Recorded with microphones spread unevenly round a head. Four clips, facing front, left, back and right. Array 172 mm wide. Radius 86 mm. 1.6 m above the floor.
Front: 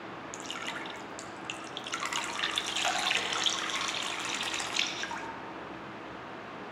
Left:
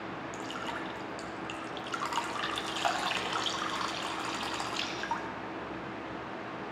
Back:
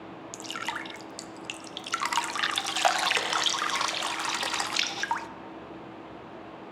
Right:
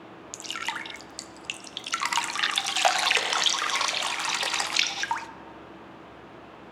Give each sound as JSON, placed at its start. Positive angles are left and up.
{"t": 0.3, "sound": "dripping", "azimuth_deg": -115, "distance_m": 0.5}